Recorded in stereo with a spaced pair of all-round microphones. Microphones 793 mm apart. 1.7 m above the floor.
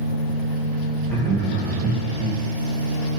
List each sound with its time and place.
1.1 s laughter: 5° left (ahead or behind), 1.1 m